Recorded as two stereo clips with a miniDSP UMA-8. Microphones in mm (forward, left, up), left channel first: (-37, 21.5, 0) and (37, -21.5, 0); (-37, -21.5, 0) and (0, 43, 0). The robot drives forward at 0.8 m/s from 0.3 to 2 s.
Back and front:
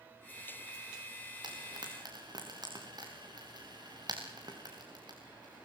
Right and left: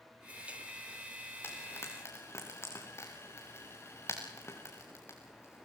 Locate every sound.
1.4 s frying: 60° right, 5 m; by 5.7 s 65° right, 5 m